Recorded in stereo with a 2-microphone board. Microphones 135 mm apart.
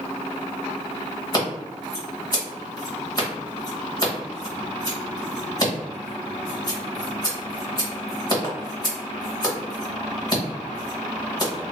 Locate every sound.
1.3 s scissors: 30° left (ahead or behind), 1.4 m